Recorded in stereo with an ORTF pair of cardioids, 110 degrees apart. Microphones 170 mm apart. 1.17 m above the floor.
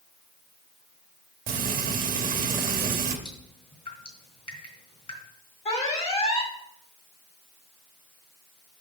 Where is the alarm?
40° left, 2.5 m.